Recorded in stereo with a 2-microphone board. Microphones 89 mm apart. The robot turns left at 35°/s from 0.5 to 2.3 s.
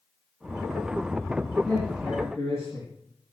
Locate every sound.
1.6 s a man speaking: 10° left (ahead or behind), 6 m; by 2.9 s 30° left (ahead or behind), 6 m